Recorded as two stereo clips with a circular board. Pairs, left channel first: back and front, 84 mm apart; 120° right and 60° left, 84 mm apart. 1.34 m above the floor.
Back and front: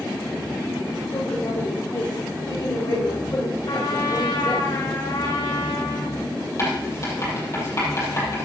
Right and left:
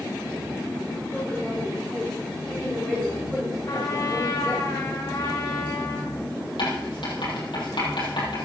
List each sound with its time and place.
1.1 s a woman speaking: 165° left, 5.5 m; by 4.7 s 145° left, 5 m
3.7 s a trumpet: 155° right, 2 m
6.6 s writing: 130° right, 6 m